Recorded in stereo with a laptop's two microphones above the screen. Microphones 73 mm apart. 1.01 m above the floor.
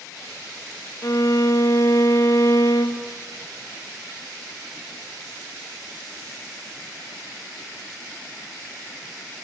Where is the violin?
50° left (ahead or behind), 1.3 m.